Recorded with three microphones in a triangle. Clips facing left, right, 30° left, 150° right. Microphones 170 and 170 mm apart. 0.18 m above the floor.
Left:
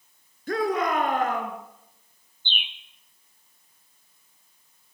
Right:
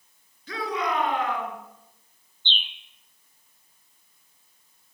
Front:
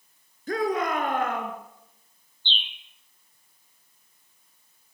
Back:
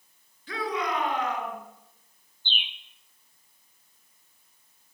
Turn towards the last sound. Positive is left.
turn(degrees=150)